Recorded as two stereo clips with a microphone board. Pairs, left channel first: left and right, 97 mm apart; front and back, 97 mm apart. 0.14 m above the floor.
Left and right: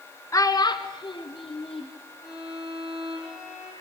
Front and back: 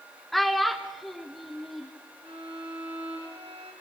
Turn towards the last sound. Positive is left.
turn(degrees=-170)